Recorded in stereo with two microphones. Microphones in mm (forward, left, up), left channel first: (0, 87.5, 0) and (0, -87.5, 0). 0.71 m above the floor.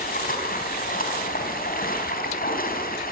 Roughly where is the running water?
Left.